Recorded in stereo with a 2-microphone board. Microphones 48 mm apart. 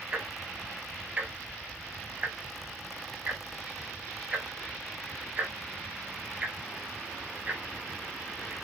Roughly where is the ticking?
Right.